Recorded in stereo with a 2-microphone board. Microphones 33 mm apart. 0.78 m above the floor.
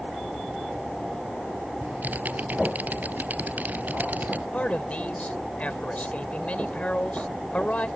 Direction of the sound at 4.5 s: 50° left (ahead or behind).